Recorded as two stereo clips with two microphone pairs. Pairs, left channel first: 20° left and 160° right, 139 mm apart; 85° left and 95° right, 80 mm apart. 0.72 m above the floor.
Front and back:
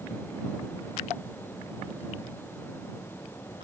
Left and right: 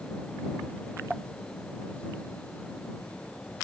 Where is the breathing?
I don't hear breathing.